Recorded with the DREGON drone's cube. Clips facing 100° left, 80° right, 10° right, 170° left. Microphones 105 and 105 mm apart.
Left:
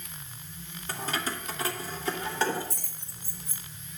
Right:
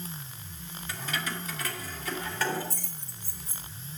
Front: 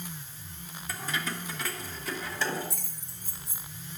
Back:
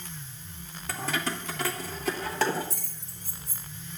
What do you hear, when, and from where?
0.9 s keys jangling: 150° left, 1.5 m; by 3.6 s 170° left, 4 m